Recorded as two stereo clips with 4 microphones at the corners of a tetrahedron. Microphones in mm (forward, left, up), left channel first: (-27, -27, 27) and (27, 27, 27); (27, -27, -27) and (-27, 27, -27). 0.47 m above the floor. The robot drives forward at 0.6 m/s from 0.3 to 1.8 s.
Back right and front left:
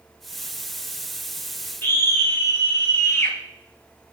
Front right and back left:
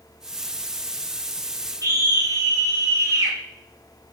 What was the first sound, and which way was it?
A scream, 170° left.